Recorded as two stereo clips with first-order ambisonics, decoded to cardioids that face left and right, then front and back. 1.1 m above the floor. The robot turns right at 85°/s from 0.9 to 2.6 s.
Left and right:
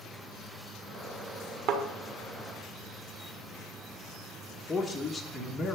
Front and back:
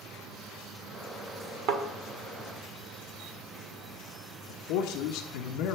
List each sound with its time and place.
1.7 s a thud: 130° right, 1.4 m; by 1.8 s 120° right, 1.4 m
4.5 s a man speaking: 5° left, 1.2 m